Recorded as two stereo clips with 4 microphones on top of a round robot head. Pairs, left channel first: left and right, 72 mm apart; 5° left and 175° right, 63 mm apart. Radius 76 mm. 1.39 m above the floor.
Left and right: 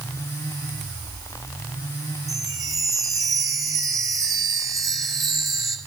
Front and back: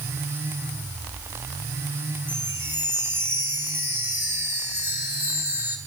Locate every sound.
2.3 s a chime: 115° right, 0.8 m